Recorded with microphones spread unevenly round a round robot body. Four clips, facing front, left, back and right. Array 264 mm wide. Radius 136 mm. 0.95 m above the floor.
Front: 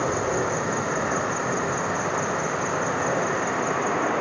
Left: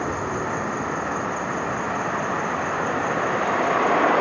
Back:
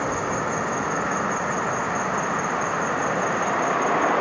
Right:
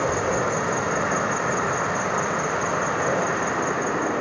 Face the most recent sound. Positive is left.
turn(degrees=-70)